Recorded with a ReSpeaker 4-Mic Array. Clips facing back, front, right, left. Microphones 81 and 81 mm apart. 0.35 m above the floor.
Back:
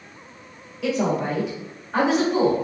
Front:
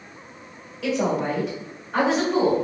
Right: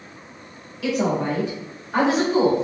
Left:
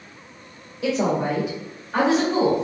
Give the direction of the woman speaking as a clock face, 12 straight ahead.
9 o'clock.